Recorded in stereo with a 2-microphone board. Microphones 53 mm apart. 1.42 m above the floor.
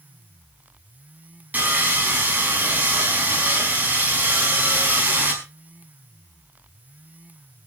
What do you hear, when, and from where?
1.5 s sawing: 30° right (ahead or behind), 5 m